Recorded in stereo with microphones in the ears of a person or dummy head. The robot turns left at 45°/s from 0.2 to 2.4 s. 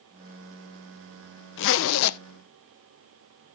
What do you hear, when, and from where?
1.6 s a zipper: 60° left (ahead or behind), 0.5 m; by 2.2 s 75° left (ahead or behind), 0.5 m